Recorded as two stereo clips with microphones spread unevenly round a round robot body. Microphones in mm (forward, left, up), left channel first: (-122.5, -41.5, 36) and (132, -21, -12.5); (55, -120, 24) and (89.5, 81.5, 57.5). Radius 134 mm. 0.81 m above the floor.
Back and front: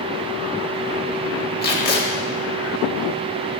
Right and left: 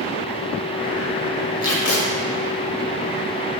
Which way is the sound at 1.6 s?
125° right.